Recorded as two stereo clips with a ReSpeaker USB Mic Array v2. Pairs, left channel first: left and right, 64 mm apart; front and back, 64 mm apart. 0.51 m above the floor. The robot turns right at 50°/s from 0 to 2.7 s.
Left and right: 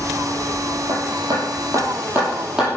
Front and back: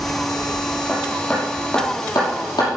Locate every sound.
0.9 s hammering: 100° right, 6 m; by 2.7 s 10° right, 6 m